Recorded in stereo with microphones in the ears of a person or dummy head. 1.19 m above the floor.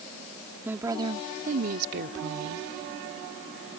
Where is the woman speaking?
10° right (ahead or behind); by 2.7 s 75° right (ahead or behind).